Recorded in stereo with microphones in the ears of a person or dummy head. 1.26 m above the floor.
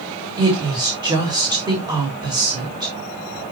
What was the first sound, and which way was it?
A woman speaking, 20° right (ahead or behind).